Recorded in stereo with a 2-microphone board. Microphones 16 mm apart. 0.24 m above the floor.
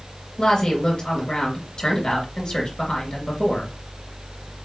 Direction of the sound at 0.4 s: 55° left (ahead or behind).